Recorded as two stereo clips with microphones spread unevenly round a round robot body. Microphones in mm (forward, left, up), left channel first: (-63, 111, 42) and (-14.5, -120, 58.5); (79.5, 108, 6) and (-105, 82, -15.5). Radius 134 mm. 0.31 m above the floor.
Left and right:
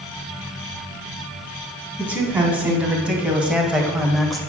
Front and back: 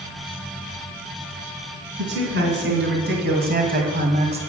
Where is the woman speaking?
160° right, 3.5 m; by 4.4 s 175° right, 1.5 m.